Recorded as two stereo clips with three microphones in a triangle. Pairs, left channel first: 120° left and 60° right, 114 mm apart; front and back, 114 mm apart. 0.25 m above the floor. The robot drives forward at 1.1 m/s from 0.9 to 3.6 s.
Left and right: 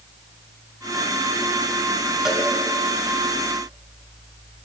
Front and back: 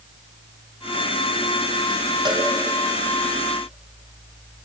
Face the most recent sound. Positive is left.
turn(degrees=-160)